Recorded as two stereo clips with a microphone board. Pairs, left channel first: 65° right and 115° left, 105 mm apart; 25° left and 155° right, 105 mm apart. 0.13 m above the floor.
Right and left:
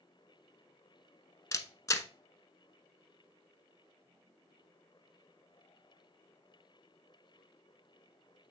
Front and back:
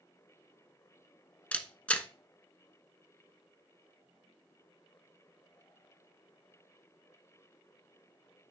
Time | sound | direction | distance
1.5 | a camera shutter | 45° right | 0.7 m